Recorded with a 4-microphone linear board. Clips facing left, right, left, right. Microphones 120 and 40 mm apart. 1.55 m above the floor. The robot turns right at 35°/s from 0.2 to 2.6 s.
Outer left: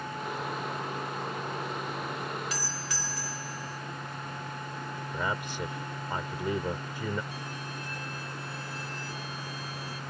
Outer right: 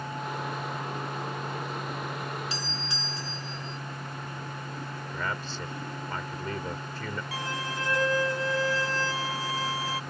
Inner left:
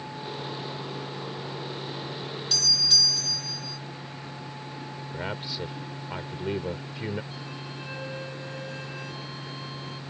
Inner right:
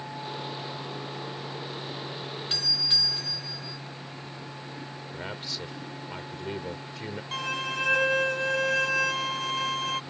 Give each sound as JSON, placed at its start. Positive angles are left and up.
{"t": 2.5, "sound": "a doorbell", "side_deg": -25}
{"t": 5.1, "sound": "a man speaking", "side_deg": 15}
{"t": 7.3, "sound": "a violin", "side_deg": -80}